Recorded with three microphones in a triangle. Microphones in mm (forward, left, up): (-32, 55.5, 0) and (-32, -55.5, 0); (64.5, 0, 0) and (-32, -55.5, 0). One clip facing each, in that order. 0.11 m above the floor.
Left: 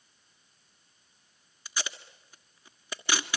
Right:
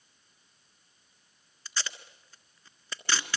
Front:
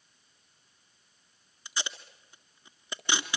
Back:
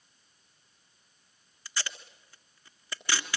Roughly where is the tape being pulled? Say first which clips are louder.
Left 1 dB, front 1 dB; ahead left.